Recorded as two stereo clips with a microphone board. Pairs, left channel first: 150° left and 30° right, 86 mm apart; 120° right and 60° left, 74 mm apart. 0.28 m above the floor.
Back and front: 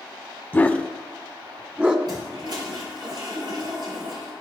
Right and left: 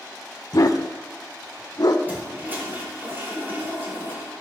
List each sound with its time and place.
0.5 s a dog barking: 145° right, 0.9 m; by 2.0 s 100° right, 1.2 m
2.1 s a toilet flushing: 5° right, 5.5 m